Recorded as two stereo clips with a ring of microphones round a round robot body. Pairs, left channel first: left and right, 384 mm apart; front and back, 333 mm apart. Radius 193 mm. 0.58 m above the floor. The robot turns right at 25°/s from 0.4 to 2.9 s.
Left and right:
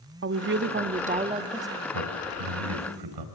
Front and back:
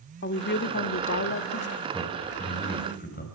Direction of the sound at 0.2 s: 45° right.